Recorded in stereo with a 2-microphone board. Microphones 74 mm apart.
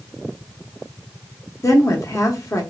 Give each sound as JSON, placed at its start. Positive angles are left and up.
{"t": 1.6, "sound": "a woman speaking", "side_deg": 50, "distance_m": 1.0}